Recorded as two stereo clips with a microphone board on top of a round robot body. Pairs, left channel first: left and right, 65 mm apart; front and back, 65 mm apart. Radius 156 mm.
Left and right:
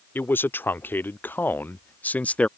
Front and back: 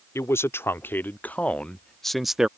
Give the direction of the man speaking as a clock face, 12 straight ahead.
11 o'clock.